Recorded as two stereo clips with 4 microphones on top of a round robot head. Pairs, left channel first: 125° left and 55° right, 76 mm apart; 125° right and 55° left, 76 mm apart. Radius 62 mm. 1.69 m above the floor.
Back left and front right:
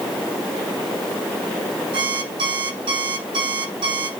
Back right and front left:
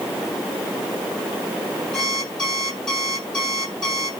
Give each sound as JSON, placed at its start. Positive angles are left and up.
{"t": 1.9, "sound": "an alarm clock", "azimuth_deg": -40, "distance_m": 7.5}